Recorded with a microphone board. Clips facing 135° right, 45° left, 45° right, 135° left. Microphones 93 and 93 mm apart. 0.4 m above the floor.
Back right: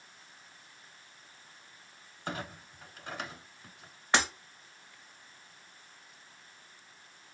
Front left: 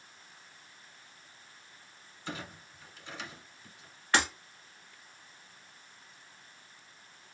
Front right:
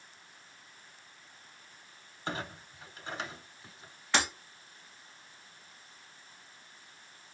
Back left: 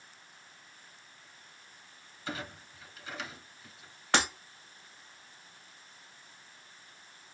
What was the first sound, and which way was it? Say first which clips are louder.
A clunk: back right 3 dB, front right 2 dB; 100° right.